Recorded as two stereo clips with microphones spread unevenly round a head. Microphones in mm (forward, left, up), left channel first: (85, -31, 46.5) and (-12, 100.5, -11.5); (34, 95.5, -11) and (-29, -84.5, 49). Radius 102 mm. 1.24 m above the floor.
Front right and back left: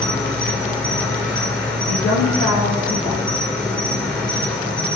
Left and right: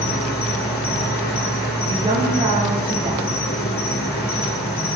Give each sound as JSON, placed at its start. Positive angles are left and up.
{"t": 0.0, "sound": "an insect", "azimuth_deg": 25, "distance_m": 5.0}
{"t": 1.9, "sound": "a woman speaking", "azimuth_deg": -45, "distance_m": 8.5}